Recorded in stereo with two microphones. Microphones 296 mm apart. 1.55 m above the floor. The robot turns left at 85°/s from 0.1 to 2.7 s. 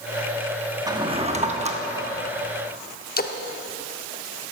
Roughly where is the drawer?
Centre.